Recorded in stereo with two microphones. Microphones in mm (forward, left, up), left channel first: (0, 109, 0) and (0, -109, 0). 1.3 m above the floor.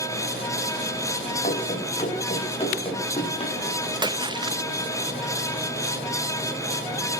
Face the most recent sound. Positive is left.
turn(degrees=-20)  # may be behind; listen again after turning